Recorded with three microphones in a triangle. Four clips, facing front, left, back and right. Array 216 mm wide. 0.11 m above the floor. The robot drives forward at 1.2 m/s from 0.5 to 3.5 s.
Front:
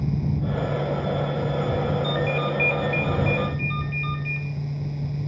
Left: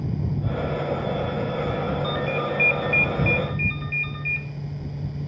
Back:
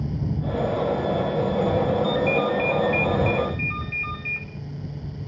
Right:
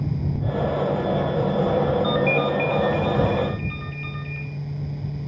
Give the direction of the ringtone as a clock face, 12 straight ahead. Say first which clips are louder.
Right 5 dB, back 3 dB; 8 o'clock.